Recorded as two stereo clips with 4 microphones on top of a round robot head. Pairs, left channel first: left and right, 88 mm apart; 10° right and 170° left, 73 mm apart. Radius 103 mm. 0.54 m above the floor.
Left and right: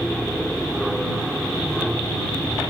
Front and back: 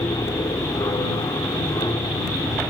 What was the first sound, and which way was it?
An aircraft, straight ahead.